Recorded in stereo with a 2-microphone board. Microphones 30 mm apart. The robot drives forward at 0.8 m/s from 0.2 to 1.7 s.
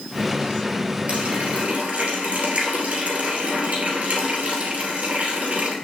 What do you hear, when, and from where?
1.1 s a running tap: 40° right (ahead or behind), 3 m; by 5.8 s 45° right (ahead or behind), 2.5 m